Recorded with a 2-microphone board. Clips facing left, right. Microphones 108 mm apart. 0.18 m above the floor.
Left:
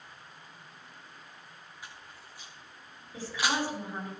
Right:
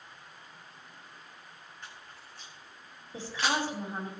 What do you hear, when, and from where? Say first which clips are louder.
1.8 s a camera shutter: even; 10° left (ahead or behind), 5 m
3.1 s a woman speaking: even; 25° right (ahead or behind), 5 m